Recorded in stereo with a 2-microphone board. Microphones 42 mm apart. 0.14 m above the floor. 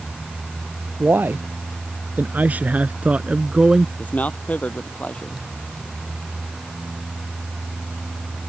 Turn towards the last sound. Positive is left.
turn(degrees=35)  # may be behind; listen again after turning